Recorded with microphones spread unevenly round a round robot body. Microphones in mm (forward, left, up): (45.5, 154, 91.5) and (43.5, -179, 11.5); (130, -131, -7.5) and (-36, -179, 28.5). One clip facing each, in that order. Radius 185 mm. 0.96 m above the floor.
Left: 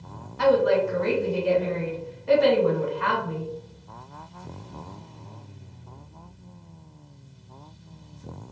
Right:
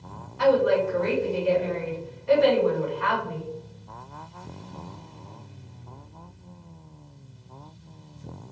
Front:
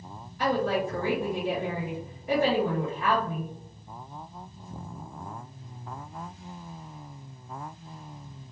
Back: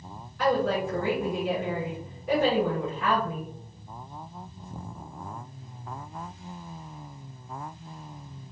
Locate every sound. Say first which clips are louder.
0.4 s a woman speaking: even, back 1 dB; 140° left, 1.7 m